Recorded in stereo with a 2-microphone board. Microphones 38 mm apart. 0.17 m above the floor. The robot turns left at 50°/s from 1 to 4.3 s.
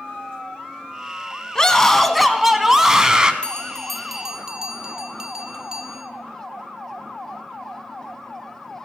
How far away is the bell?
About 1.3 m.